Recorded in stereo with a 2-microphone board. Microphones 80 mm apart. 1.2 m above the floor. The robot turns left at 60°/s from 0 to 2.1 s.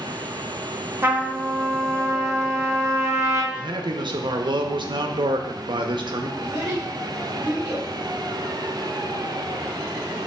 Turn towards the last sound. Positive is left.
turn(degrees=-35)  # may be behind; listen again after turning